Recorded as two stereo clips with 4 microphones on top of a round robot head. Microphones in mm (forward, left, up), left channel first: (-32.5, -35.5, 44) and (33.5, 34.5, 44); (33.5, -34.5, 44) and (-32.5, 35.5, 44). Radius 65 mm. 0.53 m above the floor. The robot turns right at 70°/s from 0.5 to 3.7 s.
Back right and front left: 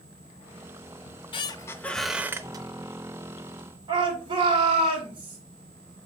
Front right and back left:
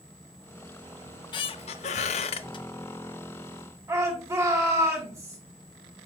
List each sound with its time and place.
1.1 s a squeak: 110° right, 0.5 m; by 2.6 s straight ahead, 0.5 m
3.9 s a shout: 80° left, 1.9 m